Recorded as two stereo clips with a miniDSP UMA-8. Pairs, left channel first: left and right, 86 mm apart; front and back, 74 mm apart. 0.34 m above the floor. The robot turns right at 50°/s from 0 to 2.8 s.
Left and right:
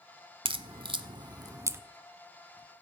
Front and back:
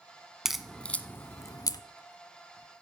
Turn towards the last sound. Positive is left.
turn(degrees=20)